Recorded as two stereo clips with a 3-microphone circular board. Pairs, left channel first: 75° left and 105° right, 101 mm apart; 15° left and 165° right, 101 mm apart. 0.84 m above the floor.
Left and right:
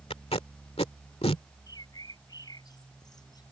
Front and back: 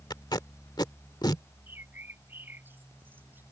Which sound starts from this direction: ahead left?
Tape being pulled, at 0.1 s.